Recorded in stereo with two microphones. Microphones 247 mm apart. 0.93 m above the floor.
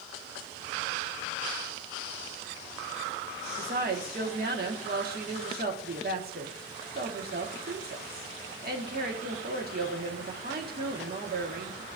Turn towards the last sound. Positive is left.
turn(degrees=-40)  # may be behind; listen again after turning